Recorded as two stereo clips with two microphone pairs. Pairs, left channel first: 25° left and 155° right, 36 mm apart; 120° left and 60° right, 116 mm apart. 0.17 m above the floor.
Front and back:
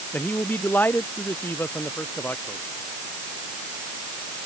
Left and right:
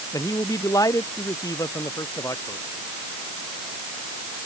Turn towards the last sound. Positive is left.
turn(degrees=55)